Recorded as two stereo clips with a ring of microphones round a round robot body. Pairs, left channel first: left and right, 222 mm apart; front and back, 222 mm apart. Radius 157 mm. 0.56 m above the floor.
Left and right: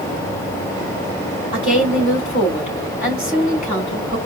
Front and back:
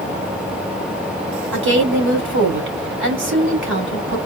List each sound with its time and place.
1.5 s a woman speaking: 155° left, 3 m